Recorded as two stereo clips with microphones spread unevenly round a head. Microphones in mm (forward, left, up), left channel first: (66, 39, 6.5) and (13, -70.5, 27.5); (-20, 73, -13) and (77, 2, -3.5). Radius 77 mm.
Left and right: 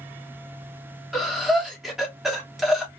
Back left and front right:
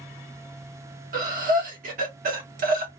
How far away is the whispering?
No whispering in this recording.